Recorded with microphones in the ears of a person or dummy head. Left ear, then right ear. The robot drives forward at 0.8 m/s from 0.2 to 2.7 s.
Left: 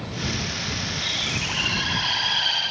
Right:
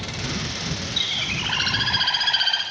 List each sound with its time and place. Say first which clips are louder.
1.0 s a bird: right 3 dB; 80° right, 7 m; by 2.6 s 70° right (ahead or behind), 7.5 m